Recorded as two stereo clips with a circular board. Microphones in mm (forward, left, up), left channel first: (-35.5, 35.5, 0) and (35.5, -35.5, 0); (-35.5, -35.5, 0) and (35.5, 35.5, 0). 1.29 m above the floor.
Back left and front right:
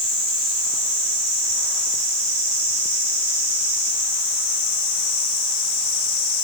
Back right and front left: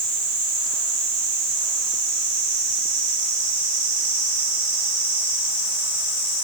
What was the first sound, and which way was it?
Only background noise.